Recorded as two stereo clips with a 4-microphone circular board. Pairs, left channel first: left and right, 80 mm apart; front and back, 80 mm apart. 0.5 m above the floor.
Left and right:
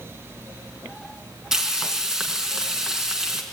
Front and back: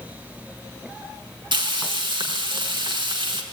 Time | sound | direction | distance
1.5 | frying | 170° right | 4.5 m